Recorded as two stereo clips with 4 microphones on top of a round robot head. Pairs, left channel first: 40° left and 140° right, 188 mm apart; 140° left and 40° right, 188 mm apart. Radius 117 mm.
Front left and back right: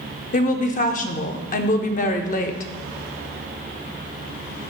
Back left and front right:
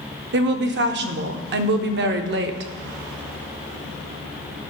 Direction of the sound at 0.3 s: 10° right.